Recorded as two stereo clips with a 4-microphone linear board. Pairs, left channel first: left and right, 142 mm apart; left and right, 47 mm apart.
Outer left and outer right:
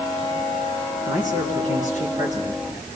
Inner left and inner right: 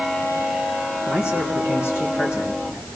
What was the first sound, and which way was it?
A man speaking, 65° left (ahead or behind).